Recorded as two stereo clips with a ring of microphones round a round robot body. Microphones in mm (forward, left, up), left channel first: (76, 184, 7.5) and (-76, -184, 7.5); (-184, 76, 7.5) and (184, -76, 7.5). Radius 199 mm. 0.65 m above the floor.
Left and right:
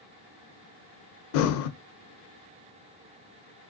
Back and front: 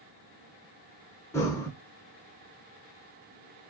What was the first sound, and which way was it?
Breathing, 75° left.